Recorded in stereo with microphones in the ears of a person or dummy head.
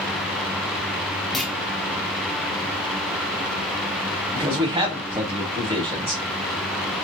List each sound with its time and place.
1.3 s a clunk: 5° left (ahead or behind), 0.5 m
4.3 s a man speaking: 25° right (ahead or behind), 1.4 m